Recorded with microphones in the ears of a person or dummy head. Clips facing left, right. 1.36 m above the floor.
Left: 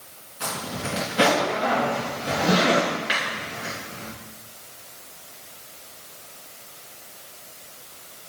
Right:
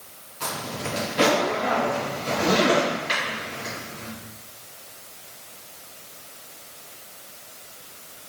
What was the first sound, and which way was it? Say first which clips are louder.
A zipper: even; 10° left (ahead or behind).